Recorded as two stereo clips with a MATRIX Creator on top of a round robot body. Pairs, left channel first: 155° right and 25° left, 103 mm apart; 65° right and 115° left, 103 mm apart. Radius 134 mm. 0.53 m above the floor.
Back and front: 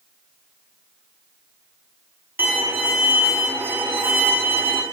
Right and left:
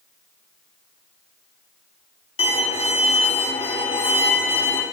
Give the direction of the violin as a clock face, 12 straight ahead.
2 o'clock.